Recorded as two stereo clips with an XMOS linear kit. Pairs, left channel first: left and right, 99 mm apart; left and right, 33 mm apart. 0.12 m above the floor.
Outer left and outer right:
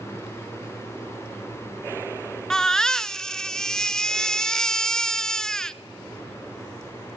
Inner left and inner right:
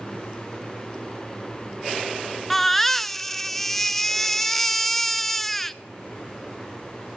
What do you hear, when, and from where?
2.5 s a baby crying: 5° left (ahead or behind), 0.5 m